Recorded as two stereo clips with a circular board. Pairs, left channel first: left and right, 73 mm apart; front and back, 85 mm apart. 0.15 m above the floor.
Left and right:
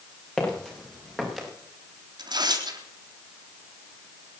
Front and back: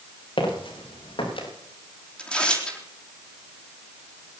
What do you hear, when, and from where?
0.4 s footsteps: 10° left, 6 m; by 1.5 s straight ahead, 5.5 m
2.2 s tearing paper: 80° right, 3.5 m